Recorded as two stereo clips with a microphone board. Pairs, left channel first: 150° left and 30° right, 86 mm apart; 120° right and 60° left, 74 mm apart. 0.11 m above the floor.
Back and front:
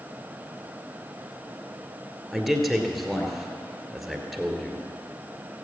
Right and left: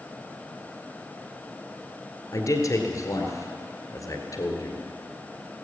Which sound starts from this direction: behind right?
A man speaking, at 2.3 s.